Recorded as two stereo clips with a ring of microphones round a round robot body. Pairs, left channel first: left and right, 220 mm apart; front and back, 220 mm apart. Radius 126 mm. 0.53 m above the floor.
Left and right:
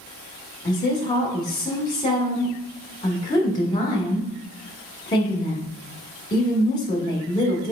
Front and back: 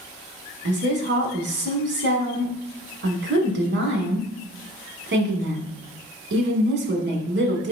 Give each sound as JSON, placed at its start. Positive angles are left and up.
{"t": 0.7, "sound": "a woman speaking", "azimuth_deg": 160, "distance_m": 1.4}